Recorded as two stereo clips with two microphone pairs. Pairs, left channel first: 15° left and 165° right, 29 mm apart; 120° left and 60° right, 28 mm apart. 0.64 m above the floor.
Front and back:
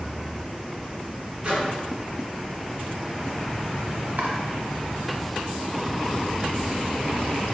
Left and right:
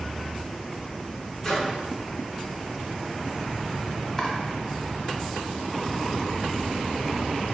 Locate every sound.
1.4 s a microwave: 170° right, 1.4 m
4.2 s chopping: 170° right, 0.9 m